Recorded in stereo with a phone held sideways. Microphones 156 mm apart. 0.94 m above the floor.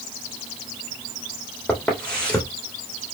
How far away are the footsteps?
About 3 m.